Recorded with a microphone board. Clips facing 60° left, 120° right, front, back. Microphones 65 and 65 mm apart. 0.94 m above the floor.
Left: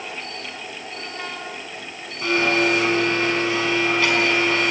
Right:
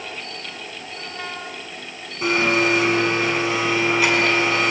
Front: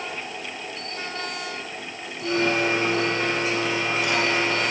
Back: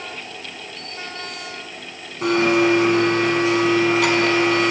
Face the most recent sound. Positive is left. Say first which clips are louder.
# right 1 dB, back 6 dB
turn(degrees=165)